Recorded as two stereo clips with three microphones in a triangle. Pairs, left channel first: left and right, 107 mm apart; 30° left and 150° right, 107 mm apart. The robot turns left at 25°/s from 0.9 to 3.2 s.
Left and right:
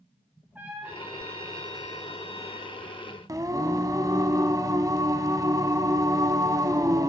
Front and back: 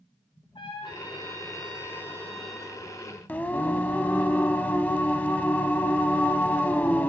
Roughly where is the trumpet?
Ahead.